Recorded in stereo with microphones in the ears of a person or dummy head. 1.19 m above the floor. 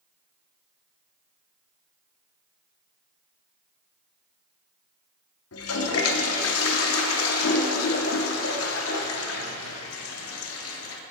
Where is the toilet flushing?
70° left (ahead or behind), 0.7 m.